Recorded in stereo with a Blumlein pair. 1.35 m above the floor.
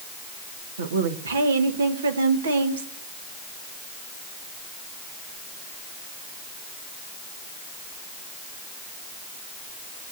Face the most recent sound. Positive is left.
turn(degrees=-65)